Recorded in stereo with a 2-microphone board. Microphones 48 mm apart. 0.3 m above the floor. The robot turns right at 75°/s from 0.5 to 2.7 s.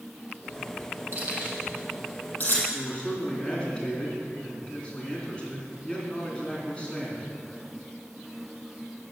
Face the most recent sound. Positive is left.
turn(degrees=20)  # may be behind; listen again after turning